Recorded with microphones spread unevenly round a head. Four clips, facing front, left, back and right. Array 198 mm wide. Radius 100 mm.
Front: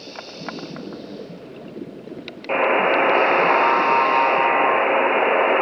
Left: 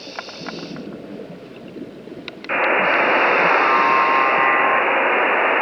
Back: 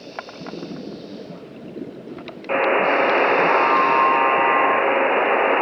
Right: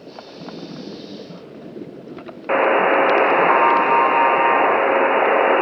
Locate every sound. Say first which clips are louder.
2.5 s a buzzer: right 3 dB, even; 95° right, 0.5 m